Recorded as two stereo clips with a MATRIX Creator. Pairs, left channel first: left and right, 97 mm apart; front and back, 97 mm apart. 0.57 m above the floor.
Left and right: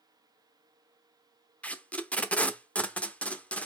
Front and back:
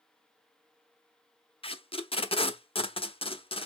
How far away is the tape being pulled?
About 0.7 m.